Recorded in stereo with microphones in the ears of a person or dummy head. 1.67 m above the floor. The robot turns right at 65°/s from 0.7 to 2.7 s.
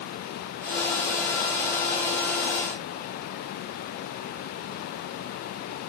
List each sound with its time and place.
Only background noise.